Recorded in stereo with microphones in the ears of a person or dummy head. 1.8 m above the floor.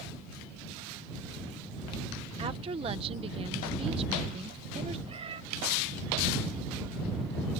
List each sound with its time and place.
2.4 s a woman speaking: 30° right (ahead or behind)
5.1 s a cat meowing: 30° right (ahead or behind)